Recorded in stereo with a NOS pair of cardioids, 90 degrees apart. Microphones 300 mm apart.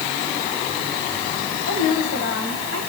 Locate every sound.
1.7 s a woman speaking: 70° left, 10 m